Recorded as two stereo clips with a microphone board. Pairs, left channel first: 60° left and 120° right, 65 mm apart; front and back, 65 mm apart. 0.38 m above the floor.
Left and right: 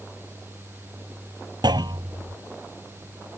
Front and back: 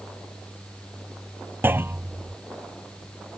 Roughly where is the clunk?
Behind right.